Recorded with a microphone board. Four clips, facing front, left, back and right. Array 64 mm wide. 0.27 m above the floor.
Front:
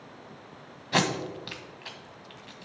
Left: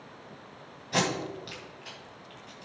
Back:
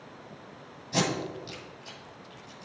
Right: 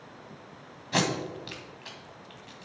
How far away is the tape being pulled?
About 1.4 m.